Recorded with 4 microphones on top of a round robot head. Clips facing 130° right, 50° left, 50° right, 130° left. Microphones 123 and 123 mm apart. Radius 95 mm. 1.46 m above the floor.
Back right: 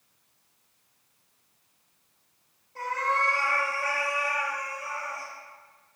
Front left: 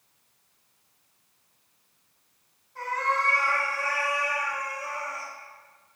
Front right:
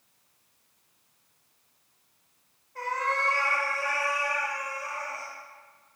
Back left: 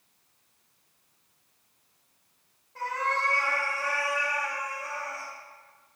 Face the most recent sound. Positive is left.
turn(degrees=100)